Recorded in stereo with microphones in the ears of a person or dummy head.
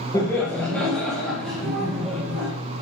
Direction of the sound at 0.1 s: 20° left (ahead or behind).